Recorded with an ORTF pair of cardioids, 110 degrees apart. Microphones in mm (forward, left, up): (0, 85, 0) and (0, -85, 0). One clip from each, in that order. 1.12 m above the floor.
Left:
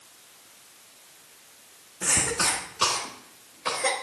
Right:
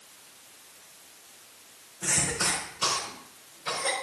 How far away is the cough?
About 1.9 m.